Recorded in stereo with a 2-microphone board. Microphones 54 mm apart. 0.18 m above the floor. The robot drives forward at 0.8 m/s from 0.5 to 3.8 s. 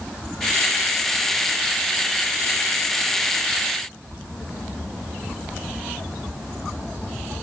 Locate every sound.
Only background noise.